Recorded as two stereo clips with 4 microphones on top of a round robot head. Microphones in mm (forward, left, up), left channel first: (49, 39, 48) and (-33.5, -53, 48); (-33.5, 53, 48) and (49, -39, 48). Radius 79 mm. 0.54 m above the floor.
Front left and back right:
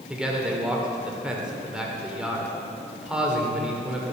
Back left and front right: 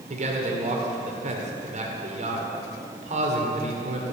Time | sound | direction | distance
0.1 | a man speaking | 50° right | 2.0 m